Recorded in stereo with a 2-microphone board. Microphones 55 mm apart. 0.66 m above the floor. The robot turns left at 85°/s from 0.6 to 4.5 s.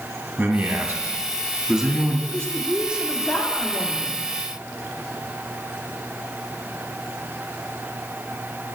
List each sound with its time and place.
0.4 s a man speaking: 55° right, 1.3 m; by 2.2 s 170° left, 1.3 m
2.3 s a woman speaking: 105° right, 1.6 m; by 4.2 s 95° left, 1.6 m